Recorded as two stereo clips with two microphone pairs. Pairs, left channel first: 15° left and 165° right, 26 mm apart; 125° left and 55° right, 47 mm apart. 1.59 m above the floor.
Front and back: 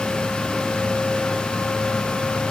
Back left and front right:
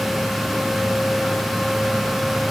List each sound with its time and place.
Only background noise.